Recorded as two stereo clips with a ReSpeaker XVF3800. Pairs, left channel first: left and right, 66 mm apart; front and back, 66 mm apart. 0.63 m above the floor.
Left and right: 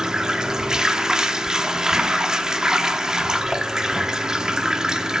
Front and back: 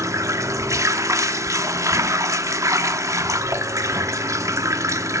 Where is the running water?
170° right, 0.8 m.